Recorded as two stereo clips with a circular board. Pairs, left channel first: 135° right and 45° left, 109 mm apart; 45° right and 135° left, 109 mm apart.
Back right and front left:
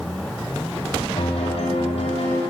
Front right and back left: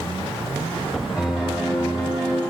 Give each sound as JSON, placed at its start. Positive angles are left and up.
{"t": 1.2, "sound": "a piano", "azimuth_deg": -140, "distance_m": 3.0}